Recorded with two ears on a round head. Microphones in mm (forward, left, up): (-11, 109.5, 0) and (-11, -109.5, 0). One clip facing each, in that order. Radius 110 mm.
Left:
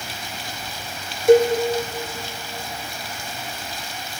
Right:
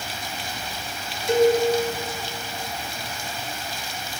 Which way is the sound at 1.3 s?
45° left (ahead or behind).